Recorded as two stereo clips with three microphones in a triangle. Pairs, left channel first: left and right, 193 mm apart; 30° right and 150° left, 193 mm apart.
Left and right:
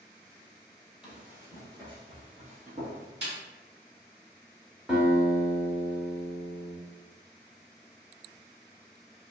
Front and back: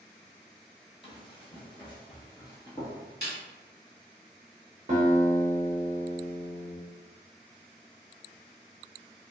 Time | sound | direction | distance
1.0 | running footsteps | 5° right | 1.0 m
3.2 | a snare drum | 65° right | 1.6 m
4.9 | a guitar | 175° right | 0.8 m